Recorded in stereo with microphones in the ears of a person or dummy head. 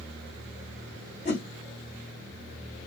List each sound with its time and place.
1.2 s a whoosh: 35° left (ahead or behind), 1.7 m